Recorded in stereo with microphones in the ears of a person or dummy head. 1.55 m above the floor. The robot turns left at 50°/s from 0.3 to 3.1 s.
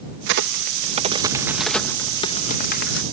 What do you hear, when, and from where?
0.3 s a crack: 70° right (ahead or behind); by 3.0 s 65° left (ahead or behind)